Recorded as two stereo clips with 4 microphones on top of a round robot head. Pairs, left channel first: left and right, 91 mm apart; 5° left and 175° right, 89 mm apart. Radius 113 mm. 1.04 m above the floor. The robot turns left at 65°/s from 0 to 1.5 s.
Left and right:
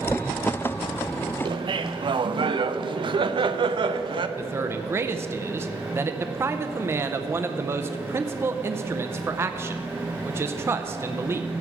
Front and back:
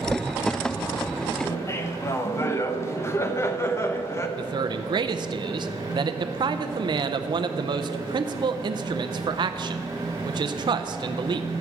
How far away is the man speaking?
About 0.6 m.